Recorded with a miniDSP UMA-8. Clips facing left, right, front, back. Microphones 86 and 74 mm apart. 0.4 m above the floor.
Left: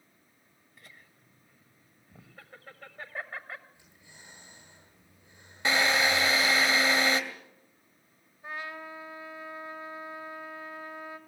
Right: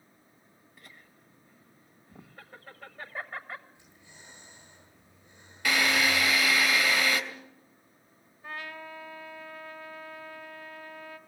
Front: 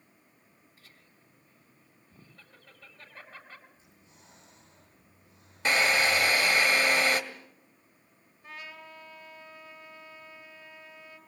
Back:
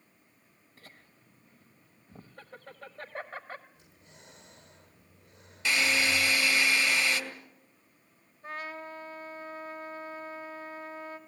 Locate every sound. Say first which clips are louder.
0.8 s laughter: right 1 dB, back 7 dB; straight behind, 1.5 m
3.8 s breathing: right 1 dB, back 2 dB; 165° left, 8.5 m
5.7 s a drill: left 1 dB, front 3 dB; 30° left, 2.5 m
8.4 s a trumpet: left 1 dB, back 6 dB; 155° left, 1.9 m